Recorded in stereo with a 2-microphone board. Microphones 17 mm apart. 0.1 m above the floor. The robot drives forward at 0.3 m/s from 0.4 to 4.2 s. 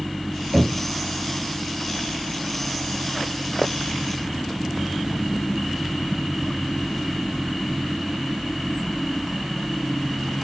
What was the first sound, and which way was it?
Knocking, 35° right (ahead or behind).